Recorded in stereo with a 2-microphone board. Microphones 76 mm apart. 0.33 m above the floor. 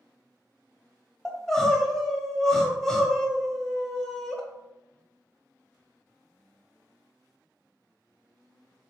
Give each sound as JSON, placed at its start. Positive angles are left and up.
{"t": 1.2, "sound": "crying", "side_deg": 5, "distance_m": 0.6}